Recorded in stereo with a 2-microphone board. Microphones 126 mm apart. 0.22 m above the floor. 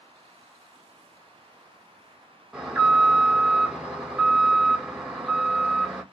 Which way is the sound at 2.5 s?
5° right (ahead or behind).